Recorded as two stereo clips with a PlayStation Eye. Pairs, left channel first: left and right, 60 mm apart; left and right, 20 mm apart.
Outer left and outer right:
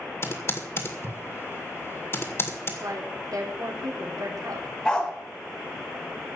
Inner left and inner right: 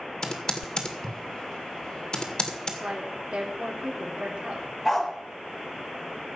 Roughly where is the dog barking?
Centre.